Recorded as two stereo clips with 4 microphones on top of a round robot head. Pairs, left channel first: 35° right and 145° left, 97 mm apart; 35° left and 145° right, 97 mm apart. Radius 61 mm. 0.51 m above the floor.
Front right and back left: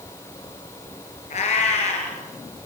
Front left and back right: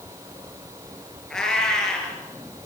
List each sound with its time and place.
1.3 s a cat meowing: 50° right, 5 m